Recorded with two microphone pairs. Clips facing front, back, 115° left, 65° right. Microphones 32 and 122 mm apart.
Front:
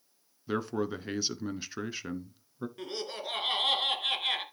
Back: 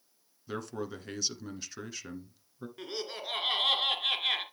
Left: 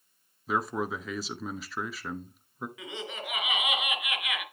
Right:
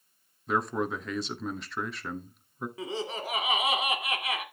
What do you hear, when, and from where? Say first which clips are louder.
0.5 s a man speaking: front 6 dB, right 1 dB; 35° left, 1.1 m
2.8 s laughter: back 1 dB, right 5 dB; 90° right, 1.9 m